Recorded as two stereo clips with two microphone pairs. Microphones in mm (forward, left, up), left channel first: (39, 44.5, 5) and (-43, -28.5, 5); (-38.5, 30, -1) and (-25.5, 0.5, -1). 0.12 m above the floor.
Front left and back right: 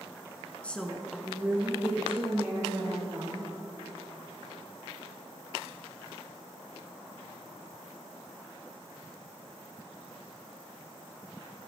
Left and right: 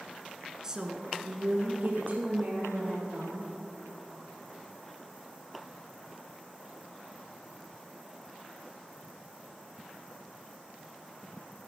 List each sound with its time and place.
0.6 s a woman speaking: 20° right, 1.3 m; by 3.5 s 70° right, 4.5 m